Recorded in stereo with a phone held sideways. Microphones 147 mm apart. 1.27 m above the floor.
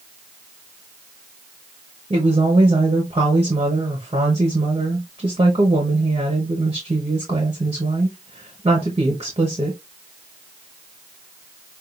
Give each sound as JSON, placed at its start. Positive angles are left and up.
{"t": 2.1, "sound": "a woman speaking", "side_deg": -40, "distance_m": 1.1}